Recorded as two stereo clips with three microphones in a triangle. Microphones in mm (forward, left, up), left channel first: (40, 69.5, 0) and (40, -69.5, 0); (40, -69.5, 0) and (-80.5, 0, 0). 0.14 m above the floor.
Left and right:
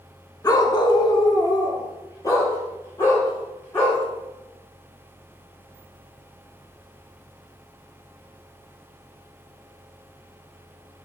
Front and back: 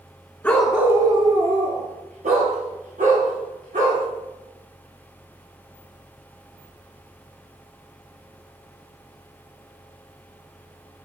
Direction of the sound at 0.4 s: 40° left.